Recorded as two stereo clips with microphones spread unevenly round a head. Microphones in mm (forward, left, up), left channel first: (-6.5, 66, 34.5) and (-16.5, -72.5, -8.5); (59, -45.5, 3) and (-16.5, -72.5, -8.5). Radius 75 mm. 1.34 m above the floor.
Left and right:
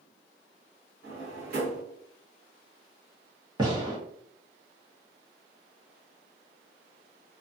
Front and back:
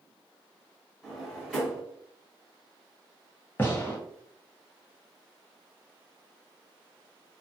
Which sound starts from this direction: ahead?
A gunshot, at 3.6 s.